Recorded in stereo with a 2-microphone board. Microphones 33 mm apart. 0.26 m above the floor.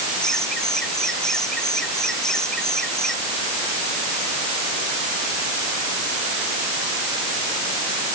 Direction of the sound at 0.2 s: 20° left (ahead or behind).